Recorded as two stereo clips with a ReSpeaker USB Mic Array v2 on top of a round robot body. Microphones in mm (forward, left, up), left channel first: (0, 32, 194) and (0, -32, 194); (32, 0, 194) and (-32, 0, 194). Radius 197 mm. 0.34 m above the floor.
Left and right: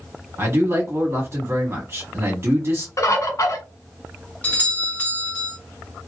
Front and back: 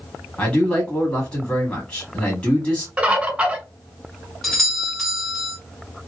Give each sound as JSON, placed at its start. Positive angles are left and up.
{"t": 0.4, "sound": "a man speaking", "azimuth_deg": -65, "distance_m": 1.8}
{"t": 3.0, "sound": "a bird", "azimuth_deg": 110, "distance_m": 1.7}
{"t": 4.4, "sound": "a doorbell", "azimuth_deg": 85, "distance_m": 1.7}